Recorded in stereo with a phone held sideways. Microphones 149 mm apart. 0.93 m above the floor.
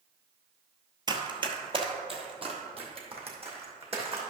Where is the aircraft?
No aircraft in this recording.